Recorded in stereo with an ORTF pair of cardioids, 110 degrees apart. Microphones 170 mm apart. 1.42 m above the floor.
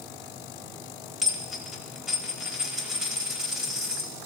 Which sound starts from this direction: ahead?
A dropped coin, at 1.2 s.